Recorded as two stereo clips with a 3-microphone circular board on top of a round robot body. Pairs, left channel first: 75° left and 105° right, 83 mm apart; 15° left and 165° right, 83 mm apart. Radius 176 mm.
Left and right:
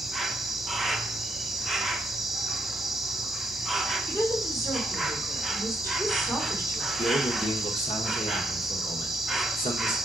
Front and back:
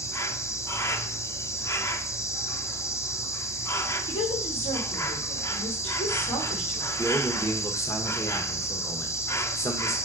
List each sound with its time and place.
0.0 s an insect: 20° right, 0.8 m
4.1 s a woman speaking: 15° left, 3.5 m
7.0 s a man speaking: 75° left, 1.2 m